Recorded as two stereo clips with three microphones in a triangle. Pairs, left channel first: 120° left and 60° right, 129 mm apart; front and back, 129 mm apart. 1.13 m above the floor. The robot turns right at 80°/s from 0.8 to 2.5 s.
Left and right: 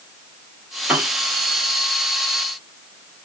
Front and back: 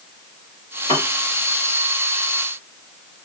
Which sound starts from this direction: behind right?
A piano, at 0.9 s.